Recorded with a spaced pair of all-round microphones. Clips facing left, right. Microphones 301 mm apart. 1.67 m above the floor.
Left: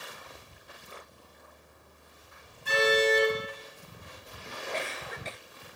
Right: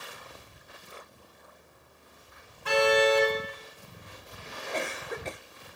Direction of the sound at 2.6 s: 75° right (ahead or behind).